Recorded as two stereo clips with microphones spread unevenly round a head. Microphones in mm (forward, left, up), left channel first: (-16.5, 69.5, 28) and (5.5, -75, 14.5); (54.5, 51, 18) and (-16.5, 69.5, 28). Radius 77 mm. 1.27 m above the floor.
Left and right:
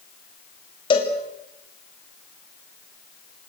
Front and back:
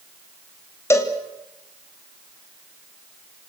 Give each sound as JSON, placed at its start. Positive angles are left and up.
{"t": 0.9, "sound": "a cowbell", "azimuth_deg": 40, "distance_m": 3.0}